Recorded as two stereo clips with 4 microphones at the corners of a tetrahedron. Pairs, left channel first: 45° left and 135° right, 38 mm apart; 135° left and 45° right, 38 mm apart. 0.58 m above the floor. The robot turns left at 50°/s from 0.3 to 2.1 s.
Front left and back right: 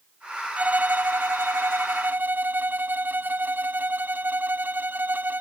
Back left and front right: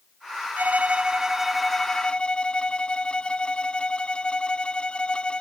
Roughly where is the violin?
Right.